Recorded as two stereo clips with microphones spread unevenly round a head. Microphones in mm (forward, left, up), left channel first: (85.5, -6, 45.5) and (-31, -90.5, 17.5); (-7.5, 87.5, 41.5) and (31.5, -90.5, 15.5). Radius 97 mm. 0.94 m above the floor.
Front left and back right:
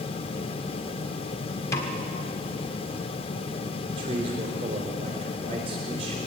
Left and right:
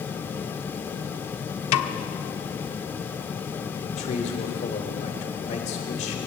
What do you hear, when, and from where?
1.7 s a snare drum: 110° left, 1.1 m
3.9 s a man speaking: 155° left, 3.5 m